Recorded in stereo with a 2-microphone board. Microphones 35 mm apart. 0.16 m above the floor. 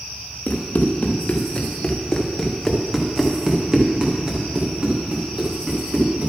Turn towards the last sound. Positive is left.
turn(degrees=-45)  # may be behind; listen again after turning